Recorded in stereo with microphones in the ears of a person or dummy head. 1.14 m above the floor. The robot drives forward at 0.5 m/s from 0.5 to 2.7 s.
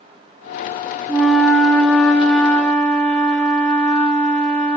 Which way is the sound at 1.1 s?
5° right (ahead or behind).